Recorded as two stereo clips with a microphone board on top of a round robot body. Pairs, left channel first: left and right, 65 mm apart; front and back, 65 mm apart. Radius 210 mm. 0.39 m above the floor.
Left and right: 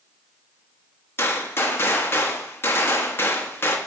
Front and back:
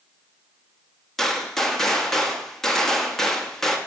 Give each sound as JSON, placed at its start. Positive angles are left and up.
{"t": 1.2, "sound": "a gunshot", "azimuth_deg": 80, "distance_m": 1.4}